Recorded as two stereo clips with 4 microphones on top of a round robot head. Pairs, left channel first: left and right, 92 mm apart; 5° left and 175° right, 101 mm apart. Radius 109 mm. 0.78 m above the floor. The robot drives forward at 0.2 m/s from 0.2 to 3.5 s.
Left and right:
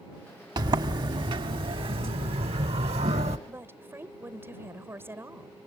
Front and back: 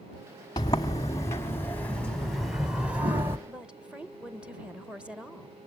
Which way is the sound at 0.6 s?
55° right.